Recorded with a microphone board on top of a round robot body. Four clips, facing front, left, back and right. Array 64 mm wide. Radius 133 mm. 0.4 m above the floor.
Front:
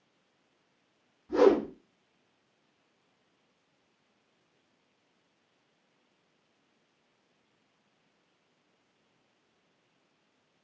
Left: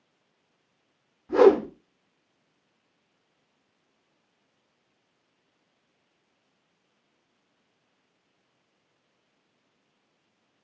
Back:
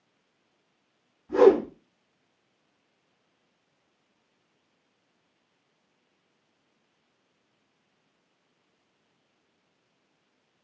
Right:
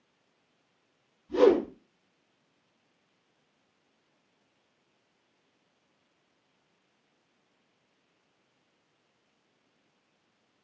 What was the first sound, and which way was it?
A whoosh, 100° left.